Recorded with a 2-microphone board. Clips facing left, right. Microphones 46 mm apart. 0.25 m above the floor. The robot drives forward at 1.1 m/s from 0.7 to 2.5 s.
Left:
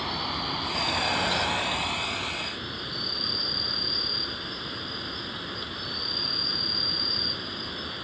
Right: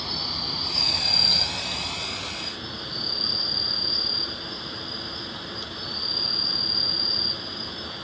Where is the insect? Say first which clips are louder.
Left 3 dB; 25° left (ahead or behind), 0.8 m; by 8.1 s 15° left (ahead or behind), 1.4 m.